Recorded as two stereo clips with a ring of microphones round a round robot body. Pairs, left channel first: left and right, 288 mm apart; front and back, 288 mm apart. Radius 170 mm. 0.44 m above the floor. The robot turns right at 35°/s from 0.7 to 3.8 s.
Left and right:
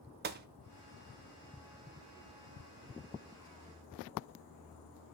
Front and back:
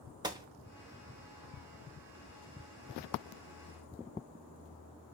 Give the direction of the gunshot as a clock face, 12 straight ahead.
4 o'clock.